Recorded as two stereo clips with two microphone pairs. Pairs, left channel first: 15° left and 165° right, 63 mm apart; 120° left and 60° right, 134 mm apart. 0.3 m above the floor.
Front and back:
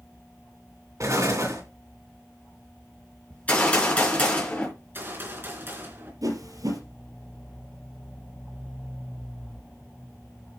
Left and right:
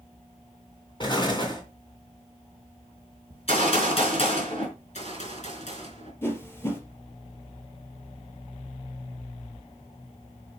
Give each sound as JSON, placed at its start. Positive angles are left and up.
{"t": 1.0, "sound": "an explosion", "azimuth_deg": 170, "distance_m": 3.0}
{"t": 3.3, "sound": "a gunshot", "azimuth_deg": 80, "distance_m": 4.0}
{"t": 4.8, "sound": "a gunshot", "azimuth_deg": 145, "distance_m": 3.5}
{"t": 6.2, "sound": "a whoosh", "azimuth_deg": -165, "distance_m": 3.0}